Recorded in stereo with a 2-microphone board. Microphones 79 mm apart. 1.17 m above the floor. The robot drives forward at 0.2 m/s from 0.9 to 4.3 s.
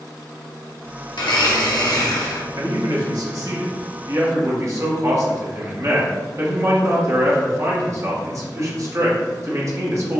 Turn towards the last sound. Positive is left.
turn(degrees=-45)  # may be behind; listen again after turning